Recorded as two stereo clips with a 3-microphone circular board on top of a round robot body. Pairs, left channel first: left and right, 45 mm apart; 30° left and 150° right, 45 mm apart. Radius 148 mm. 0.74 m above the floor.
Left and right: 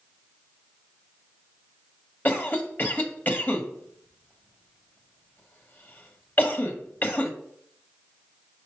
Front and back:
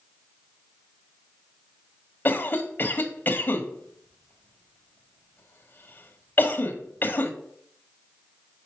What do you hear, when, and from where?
2.2 s a cough: 60° left, 1.4 m